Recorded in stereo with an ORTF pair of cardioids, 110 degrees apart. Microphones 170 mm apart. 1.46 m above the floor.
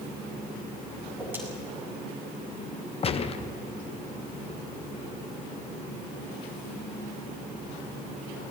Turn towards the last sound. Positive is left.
turn(degrees=35)